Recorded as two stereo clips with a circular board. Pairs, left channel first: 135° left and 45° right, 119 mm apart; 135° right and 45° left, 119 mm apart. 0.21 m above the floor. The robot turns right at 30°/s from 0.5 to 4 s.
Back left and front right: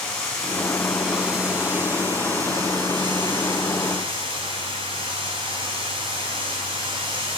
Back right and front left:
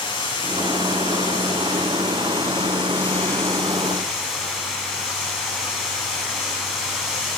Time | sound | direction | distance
0.0 | running water | 140° right | 1.1 m